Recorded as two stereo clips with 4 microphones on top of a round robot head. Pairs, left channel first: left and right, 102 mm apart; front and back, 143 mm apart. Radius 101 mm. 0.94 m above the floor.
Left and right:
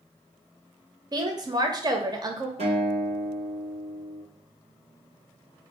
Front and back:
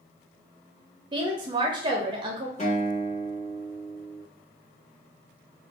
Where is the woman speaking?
130° right, 0.8 m.